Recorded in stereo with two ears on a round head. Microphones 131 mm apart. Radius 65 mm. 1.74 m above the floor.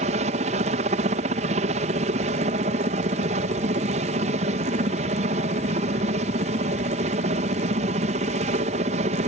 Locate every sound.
0.0 s a helicopter: 50° right (ahead or behind)